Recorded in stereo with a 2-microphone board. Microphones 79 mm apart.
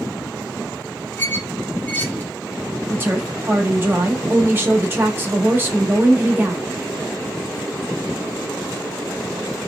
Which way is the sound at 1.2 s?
20° left (ahead or behind).